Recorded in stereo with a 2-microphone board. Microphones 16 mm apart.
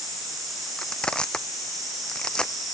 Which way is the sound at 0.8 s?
80° left.